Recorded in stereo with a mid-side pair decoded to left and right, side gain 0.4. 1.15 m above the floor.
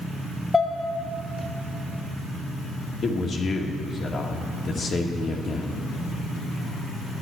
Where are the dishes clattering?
25° left, 1.7 m.